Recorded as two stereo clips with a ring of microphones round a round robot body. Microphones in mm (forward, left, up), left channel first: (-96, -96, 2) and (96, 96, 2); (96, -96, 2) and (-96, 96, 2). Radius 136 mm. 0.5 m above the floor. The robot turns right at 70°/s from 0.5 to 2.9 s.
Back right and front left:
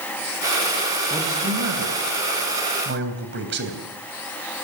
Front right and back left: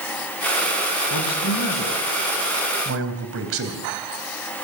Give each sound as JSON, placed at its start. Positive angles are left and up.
{"t": 1.1, "sound": "a man speaking", "azimuth_deg": -30, "distance_m": 3.0}